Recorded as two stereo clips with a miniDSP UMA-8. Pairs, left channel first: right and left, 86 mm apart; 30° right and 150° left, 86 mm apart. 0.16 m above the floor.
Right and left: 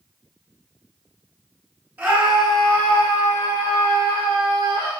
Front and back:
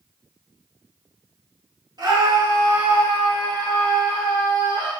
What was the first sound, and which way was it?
A scream, 150° left.